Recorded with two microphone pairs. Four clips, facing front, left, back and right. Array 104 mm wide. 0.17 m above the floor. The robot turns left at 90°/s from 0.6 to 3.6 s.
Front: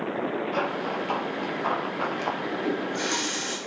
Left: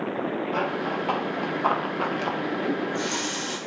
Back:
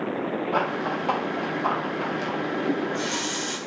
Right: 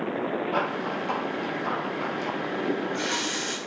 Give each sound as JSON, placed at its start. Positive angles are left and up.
{"t": 0.5, "sound": "running footsteps", "azimuth_deg": -165, "distance_m": 4.0}
{"t": 2.7, "sound": "a running tap", "azimuth_deg": 10, "distance_m": 5.5}